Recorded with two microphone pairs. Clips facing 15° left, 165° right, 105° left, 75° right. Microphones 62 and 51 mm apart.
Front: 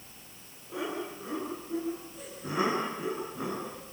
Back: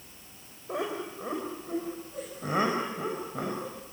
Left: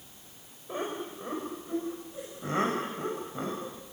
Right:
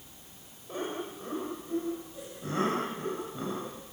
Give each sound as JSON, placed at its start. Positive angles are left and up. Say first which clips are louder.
{"t": 0.7, "sound": "laughter", "louder": "back 2 dB, left 1 dB", "azimuth_deg": 175, "distance_m": 5.5}